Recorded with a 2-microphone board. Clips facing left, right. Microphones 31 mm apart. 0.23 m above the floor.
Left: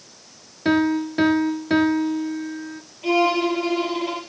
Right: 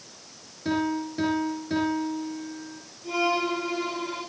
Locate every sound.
0.7 s a piano: 45° left (ahead or behind), 2 m
3.0 s a violin: 70° left (ahead or behind), 6 m